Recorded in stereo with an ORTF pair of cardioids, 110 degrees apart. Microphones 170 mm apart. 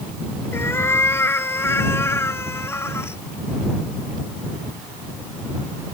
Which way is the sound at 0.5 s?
15° left.